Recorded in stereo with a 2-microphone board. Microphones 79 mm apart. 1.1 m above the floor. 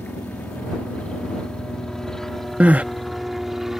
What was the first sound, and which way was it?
A helicopter, 20° left (ahead or behind).